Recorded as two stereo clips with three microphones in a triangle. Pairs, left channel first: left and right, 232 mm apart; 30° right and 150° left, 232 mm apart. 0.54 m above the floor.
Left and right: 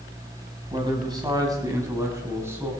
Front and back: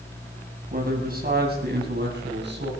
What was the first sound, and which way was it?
A man speaking, 160° right.